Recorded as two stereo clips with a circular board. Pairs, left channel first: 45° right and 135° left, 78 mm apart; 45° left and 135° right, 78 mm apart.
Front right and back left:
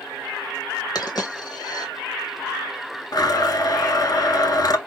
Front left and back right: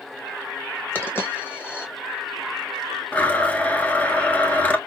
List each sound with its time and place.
0.9 s a dropped coin: 20° right, 1.0 m
3.1 s a blender: 20° right, 0.5 m